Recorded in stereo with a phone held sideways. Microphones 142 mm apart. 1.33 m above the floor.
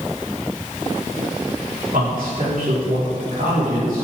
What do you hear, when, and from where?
1.9 s a man speaking: 85° right, 4 m